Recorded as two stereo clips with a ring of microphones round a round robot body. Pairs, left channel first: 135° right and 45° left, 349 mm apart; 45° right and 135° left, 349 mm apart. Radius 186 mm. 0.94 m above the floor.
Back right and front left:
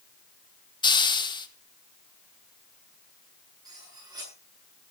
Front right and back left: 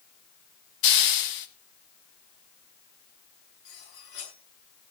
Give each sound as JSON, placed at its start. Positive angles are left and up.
{"t": 0.8, "sound": "a hiss", "azimuth_deg": -60, "distance_m": 1.6}
{"t": 3.6, "sound": "cutlery clinking", "azimuth_deg": -35, "distance_m": 9.0}